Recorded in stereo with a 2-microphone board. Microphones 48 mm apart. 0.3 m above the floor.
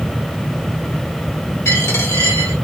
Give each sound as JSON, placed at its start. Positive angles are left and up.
{"t": 1.6, "sound": "a dropped coin", "side_deg": 85, "distance_m": 1.5}